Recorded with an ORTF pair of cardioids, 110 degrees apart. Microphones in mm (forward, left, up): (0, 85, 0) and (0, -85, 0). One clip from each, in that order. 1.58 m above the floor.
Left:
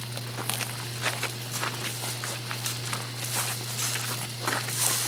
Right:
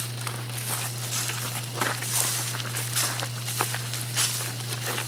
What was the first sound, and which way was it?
A fan, 45° left.